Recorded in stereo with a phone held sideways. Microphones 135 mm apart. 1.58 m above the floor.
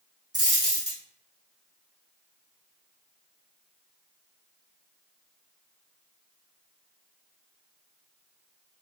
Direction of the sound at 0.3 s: 30° right (ahead or behind).